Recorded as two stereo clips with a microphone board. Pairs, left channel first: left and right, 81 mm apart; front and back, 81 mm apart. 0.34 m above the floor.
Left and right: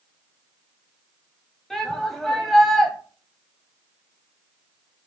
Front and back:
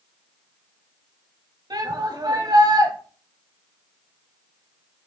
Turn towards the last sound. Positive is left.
turn(degrees=175)